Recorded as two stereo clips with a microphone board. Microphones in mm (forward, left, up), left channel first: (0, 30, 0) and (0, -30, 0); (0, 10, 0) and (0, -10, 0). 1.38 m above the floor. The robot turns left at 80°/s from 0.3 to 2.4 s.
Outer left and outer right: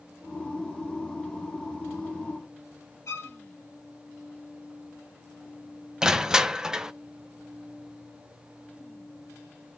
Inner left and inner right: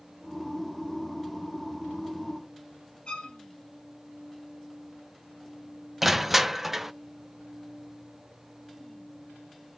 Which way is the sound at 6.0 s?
10° right (ahead or behind).